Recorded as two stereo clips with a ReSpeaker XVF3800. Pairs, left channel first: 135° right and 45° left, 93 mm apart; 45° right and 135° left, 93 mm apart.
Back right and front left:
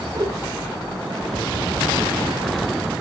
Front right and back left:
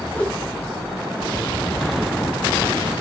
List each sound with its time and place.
0.1 s a whoosh: 30° left, 1.9 m